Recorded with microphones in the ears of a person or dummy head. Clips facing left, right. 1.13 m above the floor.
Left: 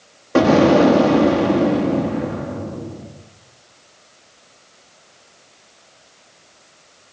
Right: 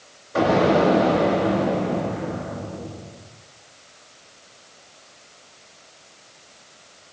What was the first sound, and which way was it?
An explosion, 65° left (ahead or behind).